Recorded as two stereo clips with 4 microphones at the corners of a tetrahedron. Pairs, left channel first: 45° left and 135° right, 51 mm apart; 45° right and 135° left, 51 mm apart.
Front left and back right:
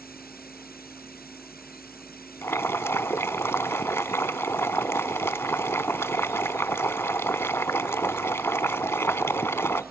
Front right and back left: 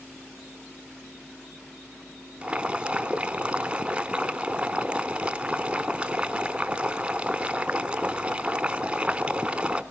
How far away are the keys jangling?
No keys jangling in this recording.